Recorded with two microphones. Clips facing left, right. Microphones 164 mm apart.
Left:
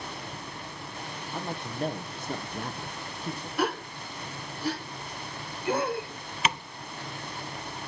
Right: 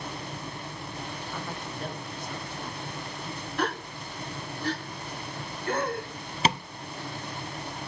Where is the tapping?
30° right (ahead or behind), 0.5 m.